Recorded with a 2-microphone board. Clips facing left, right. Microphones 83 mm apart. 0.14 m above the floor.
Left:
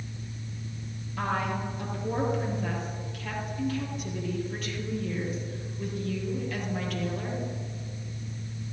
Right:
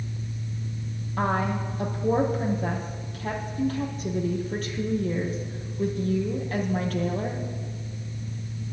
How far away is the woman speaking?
About 4.5 m.